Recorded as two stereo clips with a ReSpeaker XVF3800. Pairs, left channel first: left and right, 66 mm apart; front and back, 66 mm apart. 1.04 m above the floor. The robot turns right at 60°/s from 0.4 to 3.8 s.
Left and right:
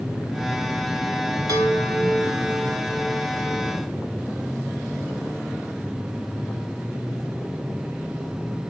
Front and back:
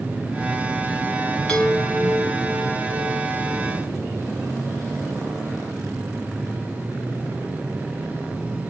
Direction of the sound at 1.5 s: 85° right.